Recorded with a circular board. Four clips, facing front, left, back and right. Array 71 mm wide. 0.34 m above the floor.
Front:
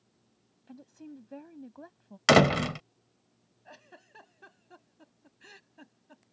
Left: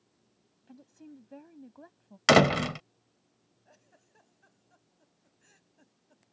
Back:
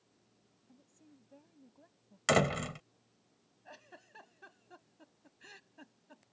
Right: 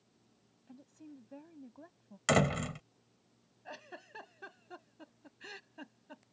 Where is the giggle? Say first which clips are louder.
Right 15 dB, front 2 dB; 85° right.